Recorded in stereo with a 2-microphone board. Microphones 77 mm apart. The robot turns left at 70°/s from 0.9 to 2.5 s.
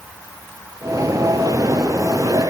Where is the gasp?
No gasp in this recording.